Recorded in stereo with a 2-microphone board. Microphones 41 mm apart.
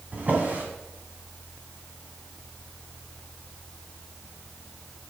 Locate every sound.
0.1 s a drawer: 40° right (ahead or behind), 2.5 m